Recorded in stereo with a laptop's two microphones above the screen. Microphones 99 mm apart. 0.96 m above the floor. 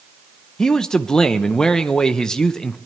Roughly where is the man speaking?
Centre.